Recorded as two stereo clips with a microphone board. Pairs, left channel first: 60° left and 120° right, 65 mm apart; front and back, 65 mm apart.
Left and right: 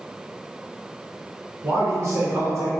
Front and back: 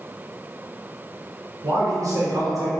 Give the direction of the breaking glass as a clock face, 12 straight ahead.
No breaking glass in this recording.